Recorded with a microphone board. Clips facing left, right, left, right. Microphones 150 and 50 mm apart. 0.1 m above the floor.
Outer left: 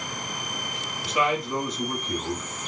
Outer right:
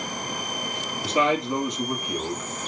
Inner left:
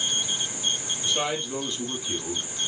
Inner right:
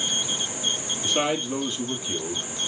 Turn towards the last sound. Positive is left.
turn(degrees=0)  # may be behind; listen again after turning